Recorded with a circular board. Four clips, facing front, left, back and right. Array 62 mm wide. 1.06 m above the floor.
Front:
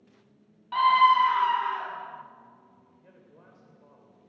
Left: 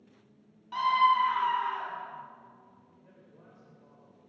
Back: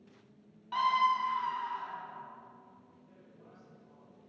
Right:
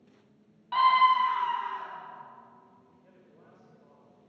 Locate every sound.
0.7 s a scream: 65° right, 0.6 m; by 2.2 s 20° left, 1.6 m
3.0 s a man speaking: 5° right, 4 m